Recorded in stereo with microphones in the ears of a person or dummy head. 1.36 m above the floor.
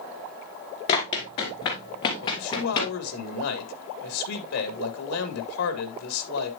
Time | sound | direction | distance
0.9 | running footsteps | 20° left (ahead or behind) | 1.4 m
2.2 | a man speaking | 85° left | 1.7 m